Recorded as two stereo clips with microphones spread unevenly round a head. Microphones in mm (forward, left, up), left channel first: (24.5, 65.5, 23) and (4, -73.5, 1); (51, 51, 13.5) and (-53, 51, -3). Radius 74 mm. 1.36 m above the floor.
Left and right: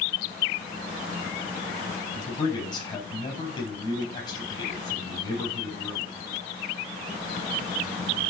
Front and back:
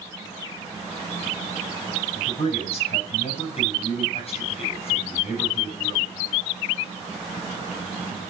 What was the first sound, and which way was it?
A man speaking, 25° left.